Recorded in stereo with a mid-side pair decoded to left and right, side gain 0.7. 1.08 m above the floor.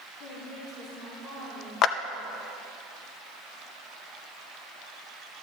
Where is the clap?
50° left, 0.5 m.